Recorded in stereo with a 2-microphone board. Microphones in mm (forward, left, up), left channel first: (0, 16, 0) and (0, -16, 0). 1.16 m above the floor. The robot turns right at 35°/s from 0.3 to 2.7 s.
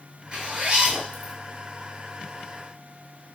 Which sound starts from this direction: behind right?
A zipper, at 0.3 s.